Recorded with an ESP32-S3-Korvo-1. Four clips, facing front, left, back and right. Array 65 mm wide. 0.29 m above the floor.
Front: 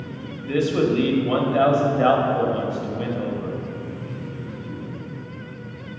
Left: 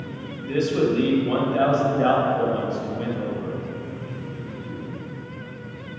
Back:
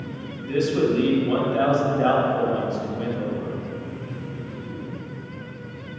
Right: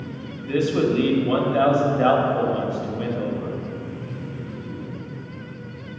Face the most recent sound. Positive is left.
turn(degrees=-35)